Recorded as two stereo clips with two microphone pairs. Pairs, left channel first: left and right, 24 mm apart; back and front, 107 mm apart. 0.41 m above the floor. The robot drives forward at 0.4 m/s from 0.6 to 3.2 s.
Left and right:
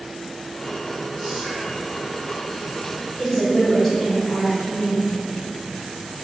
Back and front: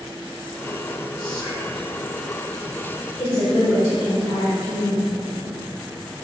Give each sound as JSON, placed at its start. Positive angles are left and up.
{"t": 1.2, "sound": "whispering", "azimuth_deg": -150, "distance_m": 1.1}
{"t": 3.2, "sound": "a woman speaking", "azimuth_deg": 180, "distance_m": 1.3}